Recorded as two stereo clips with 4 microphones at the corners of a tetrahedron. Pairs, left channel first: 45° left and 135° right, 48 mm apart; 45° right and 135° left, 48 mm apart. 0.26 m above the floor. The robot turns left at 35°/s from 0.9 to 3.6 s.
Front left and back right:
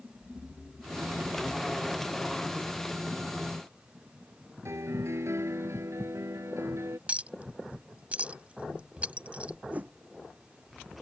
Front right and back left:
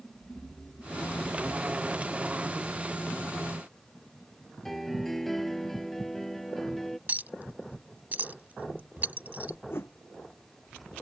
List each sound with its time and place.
4.7 s a piano: 130° right
7.1 s a clink: 175° left
9.7 s a whoosh: 75° right